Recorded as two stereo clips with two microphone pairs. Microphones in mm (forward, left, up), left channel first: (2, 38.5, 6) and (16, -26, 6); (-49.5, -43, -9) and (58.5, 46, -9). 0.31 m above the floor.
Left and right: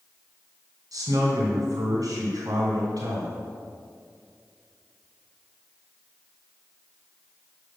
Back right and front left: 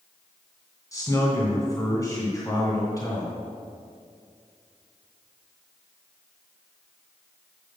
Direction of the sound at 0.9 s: 80° right.